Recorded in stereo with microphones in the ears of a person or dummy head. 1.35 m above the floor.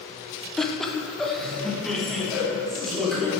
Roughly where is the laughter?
Centre.